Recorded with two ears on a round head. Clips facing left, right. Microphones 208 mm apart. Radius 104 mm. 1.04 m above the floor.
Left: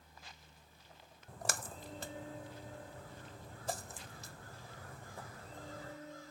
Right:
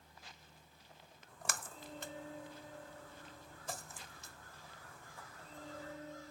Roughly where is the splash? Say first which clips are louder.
Left 5 dB; left.